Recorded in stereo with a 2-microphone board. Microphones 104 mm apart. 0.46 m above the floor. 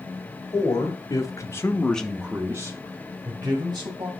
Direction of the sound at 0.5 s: 40° left (ahead or behind).